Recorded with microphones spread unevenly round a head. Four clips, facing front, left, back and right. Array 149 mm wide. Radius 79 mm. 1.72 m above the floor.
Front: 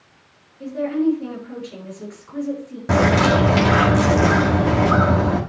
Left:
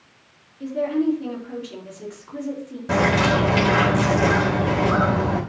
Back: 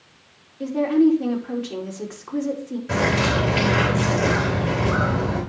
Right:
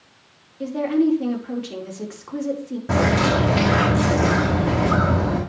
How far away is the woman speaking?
About 3.5 m.